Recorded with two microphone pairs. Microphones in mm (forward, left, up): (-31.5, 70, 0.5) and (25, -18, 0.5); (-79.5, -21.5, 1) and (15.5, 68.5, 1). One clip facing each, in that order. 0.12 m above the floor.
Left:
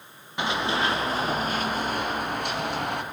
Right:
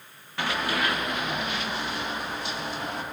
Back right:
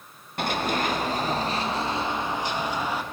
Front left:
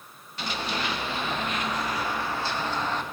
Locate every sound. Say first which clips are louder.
0.4 s running footsteps: left 2 dB, back right 5 dB; 170° right, 1.6 m; by 3.0 s 145° left, 1.9 m